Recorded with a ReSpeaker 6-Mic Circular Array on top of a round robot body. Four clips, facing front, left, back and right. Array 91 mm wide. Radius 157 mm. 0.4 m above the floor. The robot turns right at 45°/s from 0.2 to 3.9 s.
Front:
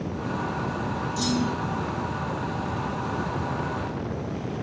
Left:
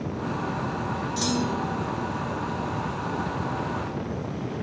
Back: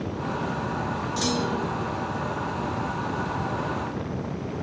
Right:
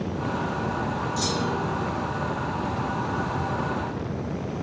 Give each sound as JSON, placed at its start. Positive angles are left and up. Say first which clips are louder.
{"t": 1.2, "sound": "a clunk", "louder": "left 2 dB, even", "azimuth_deg": 150, "distance_m": 3.5}